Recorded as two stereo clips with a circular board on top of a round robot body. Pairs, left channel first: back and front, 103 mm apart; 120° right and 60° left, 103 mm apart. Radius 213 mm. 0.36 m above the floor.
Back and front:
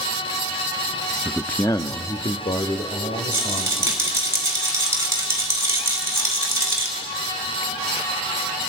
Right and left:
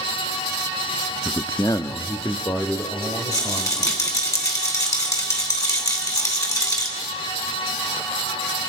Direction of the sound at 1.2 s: 75° right.